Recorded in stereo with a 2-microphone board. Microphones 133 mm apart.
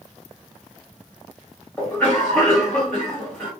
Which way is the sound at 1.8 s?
15° left (ahead or behind).